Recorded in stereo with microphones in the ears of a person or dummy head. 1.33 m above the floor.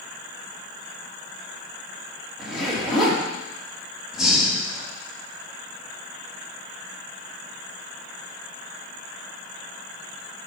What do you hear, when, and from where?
2.4 s a zipper: 10° right (ahead or behind), 2.5 m
4.1 s breathing: 10° right (ahead or behind), 1.8 m